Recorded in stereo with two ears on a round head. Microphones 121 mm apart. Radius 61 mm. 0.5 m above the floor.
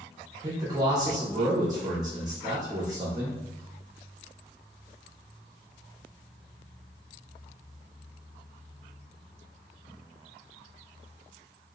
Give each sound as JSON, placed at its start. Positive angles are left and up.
{"t": 0.4, "sound": "a man speaking", "side_deg": -30, "distance_m": 0.7}